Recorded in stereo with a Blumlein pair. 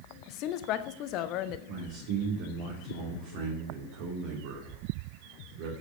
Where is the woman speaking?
40° left, 1.1 m.